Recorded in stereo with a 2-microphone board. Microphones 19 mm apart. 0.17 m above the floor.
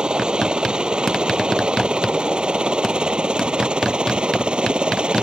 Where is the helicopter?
45° right (ahead or behind); by 5.2 s 55° right (ahead or behind).